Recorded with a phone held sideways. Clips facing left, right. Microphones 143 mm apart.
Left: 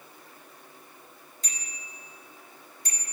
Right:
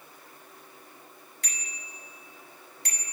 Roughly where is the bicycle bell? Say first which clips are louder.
Right 1 dB; right.